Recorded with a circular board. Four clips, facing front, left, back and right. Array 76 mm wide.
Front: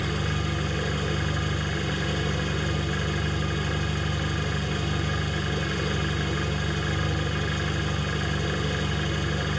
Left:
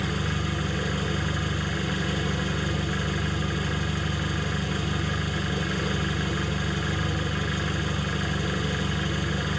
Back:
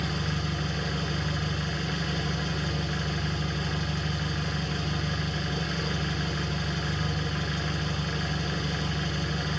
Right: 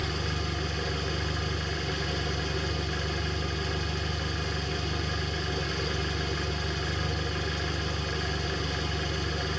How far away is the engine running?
About 0.8 m.